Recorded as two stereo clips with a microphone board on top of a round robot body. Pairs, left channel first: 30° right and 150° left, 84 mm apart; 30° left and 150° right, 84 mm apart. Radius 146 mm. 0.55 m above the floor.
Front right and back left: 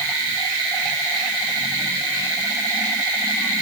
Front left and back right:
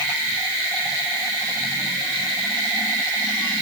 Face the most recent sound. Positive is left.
No sound to turn to.